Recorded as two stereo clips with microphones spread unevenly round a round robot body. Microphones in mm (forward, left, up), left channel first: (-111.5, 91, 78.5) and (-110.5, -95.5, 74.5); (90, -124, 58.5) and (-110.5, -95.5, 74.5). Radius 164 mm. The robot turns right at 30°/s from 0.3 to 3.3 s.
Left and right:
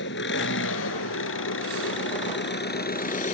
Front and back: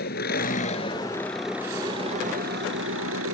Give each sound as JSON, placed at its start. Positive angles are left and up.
{"t": 0.0, "sound": "an engine running", "azimuth_deg": 50}